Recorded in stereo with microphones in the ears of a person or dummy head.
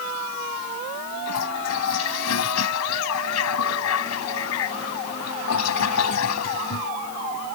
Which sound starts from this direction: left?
A toilet flushing, at 1.3 s.